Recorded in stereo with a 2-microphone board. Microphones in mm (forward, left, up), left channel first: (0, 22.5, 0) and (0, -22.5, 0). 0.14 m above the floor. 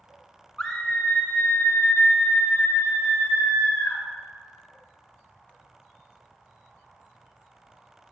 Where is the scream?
15° left (ahead or behind), 1.2 m; by 4.0 s 65° left (ahead or behind), 3.5 m.